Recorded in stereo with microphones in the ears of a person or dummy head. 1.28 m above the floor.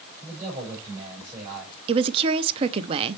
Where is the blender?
No blender in this recording.